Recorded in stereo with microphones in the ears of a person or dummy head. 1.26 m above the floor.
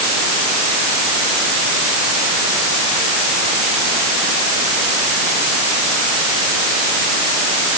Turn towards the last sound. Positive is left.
No sound to turn to.